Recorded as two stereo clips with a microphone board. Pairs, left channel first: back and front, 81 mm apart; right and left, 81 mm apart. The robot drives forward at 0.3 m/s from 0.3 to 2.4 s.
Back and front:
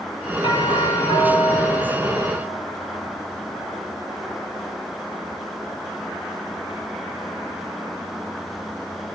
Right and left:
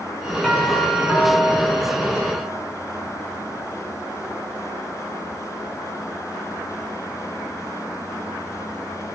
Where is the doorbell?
165° right, 10 m.